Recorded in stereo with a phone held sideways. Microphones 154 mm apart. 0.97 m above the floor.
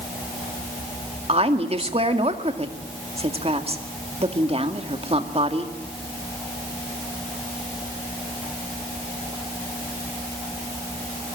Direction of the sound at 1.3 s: 40° right (ahead or behind).